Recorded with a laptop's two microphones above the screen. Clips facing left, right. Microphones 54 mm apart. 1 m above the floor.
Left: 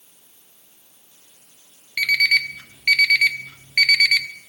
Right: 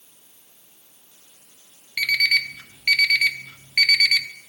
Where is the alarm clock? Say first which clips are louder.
Left 3 dB; 10° left (ahead or behind), 0.6 m.